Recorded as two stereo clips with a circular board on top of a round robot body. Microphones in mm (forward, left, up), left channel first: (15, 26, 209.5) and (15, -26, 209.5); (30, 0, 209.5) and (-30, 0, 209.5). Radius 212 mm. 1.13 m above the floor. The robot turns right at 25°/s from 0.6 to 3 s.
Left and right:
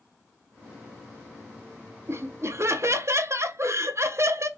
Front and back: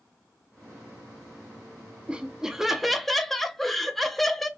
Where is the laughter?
110° right, 0.8 m; by 4.5 s 85° right, 0.8 m.